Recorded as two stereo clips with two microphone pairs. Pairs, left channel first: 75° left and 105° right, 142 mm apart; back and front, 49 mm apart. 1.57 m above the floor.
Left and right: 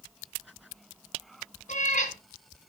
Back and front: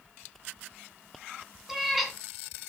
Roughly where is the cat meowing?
Left.